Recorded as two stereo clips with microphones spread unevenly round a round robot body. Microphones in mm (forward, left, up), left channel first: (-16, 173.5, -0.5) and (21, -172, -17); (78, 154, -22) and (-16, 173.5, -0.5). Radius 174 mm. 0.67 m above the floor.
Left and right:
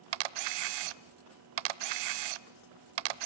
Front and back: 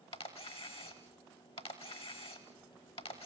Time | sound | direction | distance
0.1 | a camera shutter | 75° right | 0.7 m